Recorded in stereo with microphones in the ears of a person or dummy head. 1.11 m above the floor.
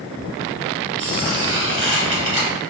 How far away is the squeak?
About 1.6 m.